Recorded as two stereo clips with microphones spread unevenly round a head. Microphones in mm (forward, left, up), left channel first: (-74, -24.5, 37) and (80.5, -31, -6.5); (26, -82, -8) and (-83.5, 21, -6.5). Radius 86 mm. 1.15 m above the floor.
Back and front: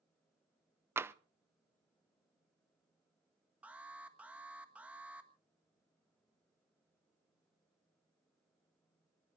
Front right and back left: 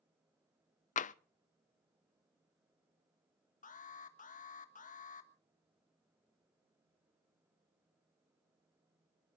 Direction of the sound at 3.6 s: 80° right.